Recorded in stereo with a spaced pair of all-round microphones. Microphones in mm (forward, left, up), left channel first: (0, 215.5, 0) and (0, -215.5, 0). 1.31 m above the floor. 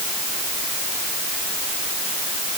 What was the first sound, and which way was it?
Only background noise.